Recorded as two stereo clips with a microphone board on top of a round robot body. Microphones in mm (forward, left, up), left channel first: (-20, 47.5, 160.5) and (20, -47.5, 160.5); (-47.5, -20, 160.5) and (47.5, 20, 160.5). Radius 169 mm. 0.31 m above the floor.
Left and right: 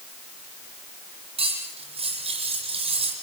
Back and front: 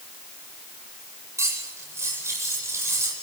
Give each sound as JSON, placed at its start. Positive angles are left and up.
{"t": 1.4, "sound": "cutlery clinking", "azimuth_deg": -45, "distance_m": 9.0}